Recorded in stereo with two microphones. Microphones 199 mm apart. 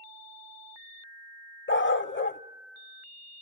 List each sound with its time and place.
1.7 s a dog barking: 85° left, 0.6 m